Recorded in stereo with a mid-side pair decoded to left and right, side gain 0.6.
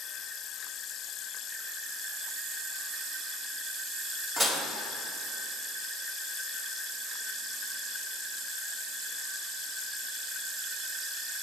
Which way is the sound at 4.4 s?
10° right.